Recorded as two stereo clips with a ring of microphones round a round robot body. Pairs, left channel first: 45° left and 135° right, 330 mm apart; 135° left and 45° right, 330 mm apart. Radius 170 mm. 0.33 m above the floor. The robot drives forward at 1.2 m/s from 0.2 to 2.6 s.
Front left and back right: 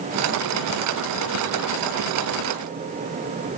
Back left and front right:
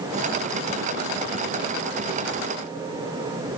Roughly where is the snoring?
No snoring in this recording.